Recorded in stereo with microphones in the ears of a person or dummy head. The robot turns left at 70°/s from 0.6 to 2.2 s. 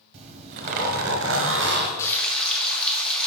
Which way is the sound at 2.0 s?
20° left (ahead or behind).